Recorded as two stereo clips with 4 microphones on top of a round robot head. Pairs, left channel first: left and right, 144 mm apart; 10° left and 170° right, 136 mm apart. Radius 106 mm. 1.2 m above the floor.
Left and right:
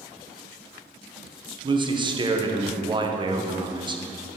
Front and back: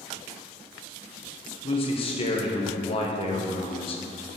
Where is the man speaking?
35° right, 1.1 m.